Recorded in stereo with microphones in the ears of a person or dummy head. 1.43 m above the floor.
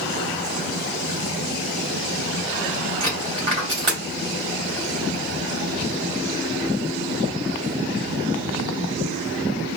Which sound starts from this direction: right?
A dropped coin, at 3.0 s.